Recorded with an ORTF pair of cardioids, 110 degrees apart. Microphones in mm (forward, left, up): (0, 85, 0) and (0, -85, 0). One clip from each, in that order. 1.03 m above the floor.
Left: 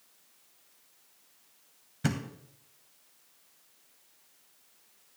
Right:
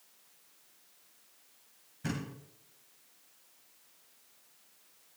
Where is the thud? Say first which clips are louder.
Left 5 dB; 60° left, 2.5 m.